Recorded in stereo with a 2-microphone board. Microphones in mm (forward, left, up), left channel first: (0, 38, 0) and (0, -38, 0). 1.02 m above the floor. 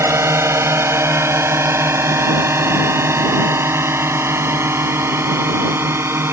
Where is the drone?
35° right (ahead or behind); by 6.3 s 30° right (ahead or behind).